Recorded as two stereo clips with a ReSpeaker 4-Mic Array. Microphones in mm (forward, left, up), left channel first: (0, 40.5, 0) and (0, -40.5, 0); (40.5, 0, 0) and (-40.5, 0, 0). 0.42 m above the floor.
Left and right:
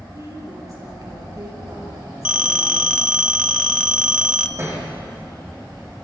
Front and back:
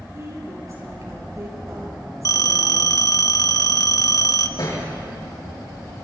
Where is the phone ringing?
15° right, 1.0 m.